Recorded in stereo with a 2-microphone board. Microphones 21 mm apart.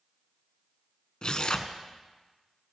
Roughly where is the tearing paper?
Left.